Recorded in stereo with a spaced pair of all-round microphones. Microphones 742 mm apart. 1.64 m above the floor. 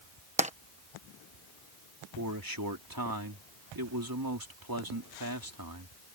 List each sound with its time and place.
0.4 s tapping: 10° right (ahead or behind)
2.2 s a man speaking: 25° right (ahead or behind)